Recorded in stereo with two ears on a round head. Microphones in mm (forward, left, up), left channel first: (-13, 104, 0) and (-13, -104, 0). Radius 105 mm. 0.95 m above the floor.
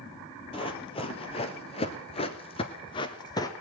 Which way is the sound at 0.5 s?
25° left (ahead or behind).